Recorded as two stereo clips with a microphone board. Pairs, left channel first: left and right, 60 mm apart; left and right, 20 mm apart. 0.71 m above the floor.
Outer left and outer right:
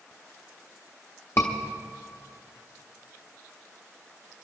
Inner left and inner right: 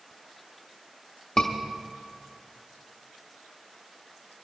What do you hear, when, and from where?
1.4 s a scream: 50° left (ahead or behind), 0.9 m